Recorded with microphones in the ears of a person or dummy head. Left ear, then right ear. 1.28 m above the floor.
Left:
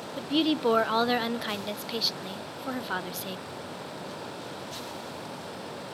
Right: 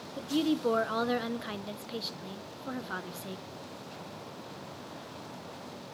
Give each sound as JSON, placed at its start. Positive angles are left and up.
{"t": 0.2, "sound": "a woman speaking", "side_deg": 25, "distance_m": 0.5}